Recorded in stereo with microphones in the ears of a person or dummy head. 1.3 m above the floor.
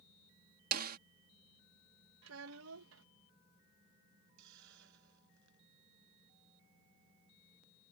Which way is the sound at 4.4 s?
65° right (ahead or behind).